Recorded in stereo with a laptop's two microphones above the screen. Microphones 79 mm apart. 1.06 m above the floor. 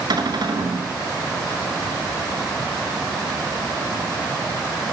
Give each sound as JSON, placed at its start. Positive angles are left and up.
{"t": 0.1, "sound": "a cupboard door", "side_deg": -65, "distance_m": 6.5}